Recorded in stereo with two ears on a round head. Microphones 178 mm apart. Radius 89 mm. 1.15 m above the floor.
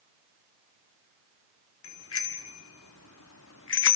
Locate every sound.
1.8 s a bicycle bell: 75° left (ahead or behind), 2.5 m; by 4.0 s 60° left (ahead or behind), 1.2 m